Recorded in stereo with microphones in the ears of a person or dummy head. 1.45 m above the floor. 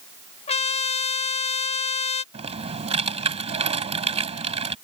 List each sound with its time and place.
0.5 s a trumpet: 25° left (ahead or behind)
2.3 s typing on a keyboard: 40° right (ahead or behind)